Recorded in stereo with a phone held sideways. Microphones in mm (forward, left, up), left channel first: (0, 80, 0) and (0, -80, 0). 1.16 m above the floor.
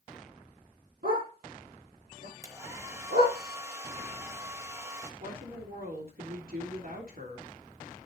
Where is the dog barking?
80° right, 8 m; by 3.4 s 85° right, 8 m.